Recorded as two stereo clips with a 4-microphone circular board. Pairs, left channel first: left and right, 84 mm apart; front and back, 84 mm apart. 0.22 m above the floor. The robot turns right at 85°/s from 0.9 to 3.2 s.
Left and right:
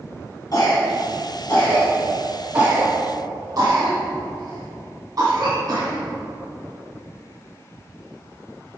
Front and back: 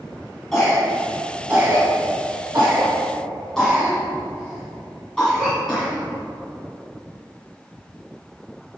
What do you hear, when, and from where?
0.5 s a cough: 85° left, 2.0 m; by 6.0 s 80° right, 2.0 m